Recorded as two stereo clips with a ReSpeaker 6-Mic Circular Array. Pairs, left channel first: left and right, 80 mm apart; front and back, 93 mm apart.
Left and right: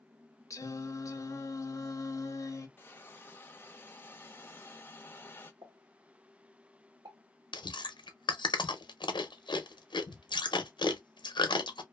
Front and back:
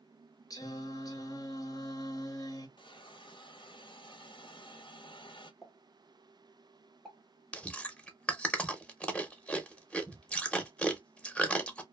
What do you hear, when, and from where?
0.5 s singing: 40° left, 0.6 m
2.8 s a hiss: 25° left, 0.5 m
5.6 s a pop: 95° right, 1.2 m
7.5 s chewing: 75° left, 0.5 m